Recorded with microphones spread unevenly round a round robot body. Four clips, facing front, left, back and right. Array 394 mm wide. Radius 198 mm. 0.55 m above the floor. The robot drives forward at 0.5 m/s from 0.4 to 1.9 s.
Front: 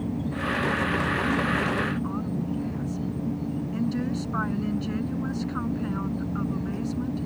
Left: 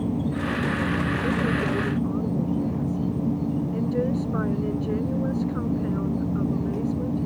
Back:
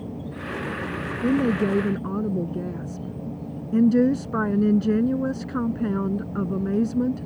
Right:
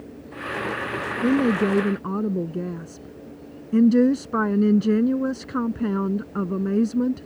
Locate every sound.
0.0 s an insect: 90° left; by 7.3 s 95° left
1.2 s a woman speaking: 115° right; by 7.3 s 120° right